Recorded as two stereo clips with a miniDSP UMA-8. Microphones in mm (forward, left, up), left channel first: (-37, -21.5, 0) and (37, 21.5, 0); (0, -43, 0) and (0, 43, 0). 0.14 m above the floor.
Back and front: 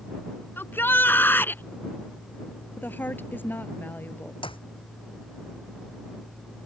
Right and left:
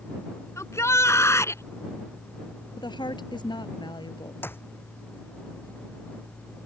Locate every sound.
0.6 s a shout: 105° right
2.8 s a woman speaking: 85° right
4.4 s a clap: 155° right